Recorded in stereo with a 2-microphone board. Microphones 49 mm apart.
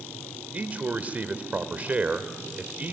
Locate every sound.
0.5 s a man speaking: 30° right (ahead or behind), 1.3 m